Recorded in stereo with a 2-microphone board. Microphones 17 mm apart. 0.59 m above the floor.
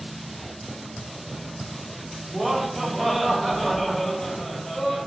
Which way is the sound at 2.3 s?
25° right (ahead or behind).